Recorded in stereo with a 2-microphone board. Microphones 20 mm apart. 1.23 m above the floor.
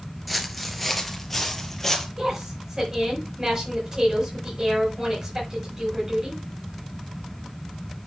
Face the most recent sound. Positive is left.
turn(degrees=-25)  # may be behind; listen again after turning